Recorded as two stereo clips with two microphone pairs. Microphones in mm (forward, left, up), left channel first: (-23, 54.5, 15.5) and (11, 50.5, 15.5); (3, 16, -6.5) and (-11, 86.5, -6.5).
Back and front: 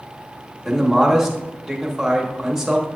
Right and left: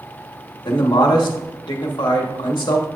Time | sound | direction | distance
0.7 | a man speaking | 85° right | 1.0 m